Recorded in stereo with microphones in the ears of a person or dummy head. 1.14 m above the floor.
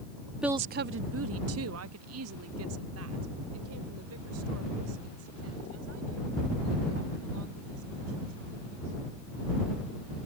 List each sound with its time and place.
0.4 s a woman speaking: 10° right (ahead or behind); by 8.9 s 75° right (ahead or behind)